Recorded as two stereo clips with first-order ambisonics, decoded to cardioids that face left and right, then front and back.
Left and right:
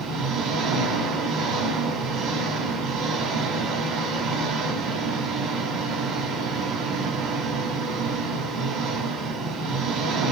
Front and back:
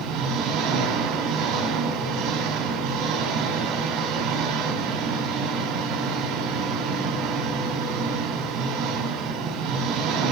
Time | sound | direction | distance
0.0 | an engine running | 135° right | 4.5 m